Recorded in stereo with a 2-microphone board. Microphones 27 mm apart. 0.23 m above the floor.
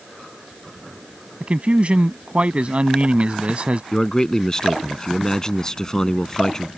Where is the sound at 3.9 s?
25° left (ahead or behind).